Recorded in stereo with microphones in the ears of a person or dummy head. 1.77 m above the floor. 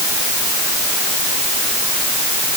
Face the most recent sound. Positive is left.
No sound to turn to.